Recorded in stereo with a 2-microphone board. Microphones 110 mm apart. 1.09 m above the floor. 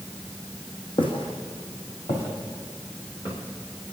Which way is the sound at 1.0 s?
55° left (ahead or behind).